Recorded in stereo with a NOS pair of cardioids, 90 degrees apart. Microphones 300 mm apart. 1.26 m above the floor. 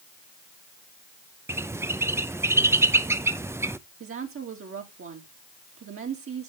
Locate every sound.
1.5 s a bird: 10° right, 0.6 m
4.0 s a woman speaking: 45° right, 2.5 m